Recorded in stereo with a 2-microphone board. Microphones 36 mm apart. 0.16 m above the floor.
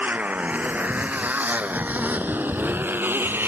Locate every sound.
0.0 s a motorcycle: 40° right (ahead or behind); by 3.5 s 65° right (ahead or behind)